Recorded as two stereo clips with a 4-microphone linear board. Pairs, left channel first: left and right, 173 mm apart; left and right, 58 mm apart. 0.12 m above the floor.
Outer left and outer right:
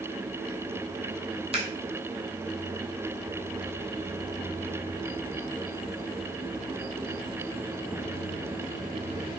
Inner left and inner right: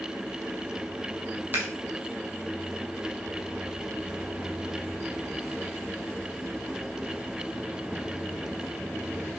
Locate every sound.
1.5 s scissors: 35° right (ahead or behind), 0.7 m